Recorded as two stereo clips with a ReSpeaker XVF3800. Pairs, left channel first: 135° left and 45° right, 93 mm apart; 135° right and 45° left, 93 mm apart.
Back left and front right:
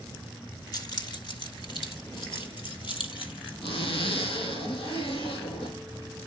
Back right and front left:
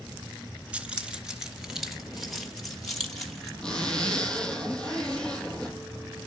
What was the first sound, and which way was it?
Keys jangling, 115° left.